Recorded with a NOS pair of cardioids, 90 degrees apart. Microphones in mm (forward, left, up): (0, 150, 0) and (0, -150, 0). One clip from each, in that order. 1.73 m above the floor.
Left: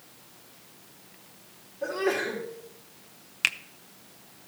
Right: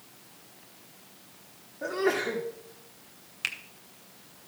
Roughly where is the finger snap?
Ahead left.